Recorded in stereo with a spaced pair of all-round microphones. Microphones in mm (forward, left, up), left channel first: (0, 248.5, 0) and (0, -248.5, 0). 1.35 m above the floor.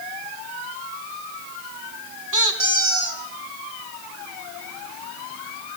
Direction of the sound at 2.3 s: 40° right (ahead or behind).